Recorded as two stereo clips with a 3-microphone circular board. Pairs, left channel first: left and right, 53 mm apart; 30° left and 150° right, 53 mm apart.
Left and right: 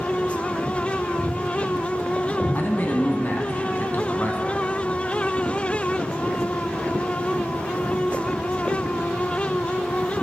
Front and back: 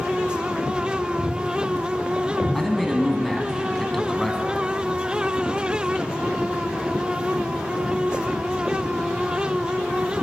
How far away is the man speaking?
About 1.3 m.